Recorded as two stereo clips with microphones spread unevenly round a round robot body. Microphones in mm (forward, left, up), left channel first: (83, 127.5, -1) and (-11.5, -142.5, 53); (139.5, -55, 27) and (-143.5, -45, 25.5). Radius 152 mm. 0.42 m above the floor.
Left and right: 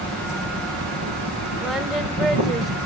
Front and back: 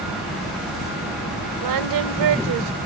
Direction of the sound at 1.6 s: 160° left.